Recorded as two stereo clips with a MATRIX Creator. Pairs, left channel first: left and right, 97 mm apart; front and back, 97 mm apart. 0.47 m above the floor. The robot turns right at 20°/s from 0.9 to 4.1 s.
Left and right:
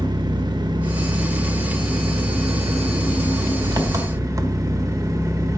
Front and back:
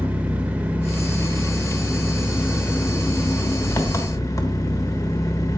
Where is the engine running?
110° right, 1.2 m; by 5.6 s 45° right, 1.2 m.